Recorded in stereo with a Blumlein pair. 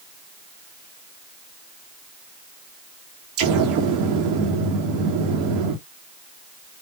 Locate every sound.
3.4 s an explosion: 40° right, 1.7 m